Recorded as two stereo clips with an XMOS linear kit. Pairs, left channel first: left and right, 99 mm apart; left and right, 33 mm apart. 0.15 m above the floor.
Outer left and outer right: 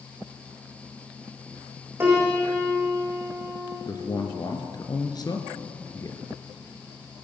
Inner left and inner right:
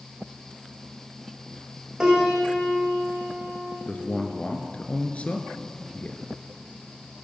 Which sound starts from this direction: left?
A man speaking, at 3.9 s.